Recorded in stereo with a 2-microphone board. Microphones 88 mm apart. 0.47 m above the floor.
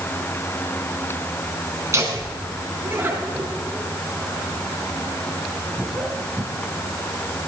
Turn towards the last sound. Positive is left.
turn(degrees=10)  # may be behind; listen again after turning